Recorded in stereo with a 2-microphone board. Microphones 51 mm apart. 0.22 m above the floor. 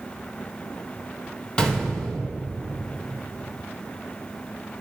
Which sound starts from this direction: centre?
A gunshot, at 1.6 s.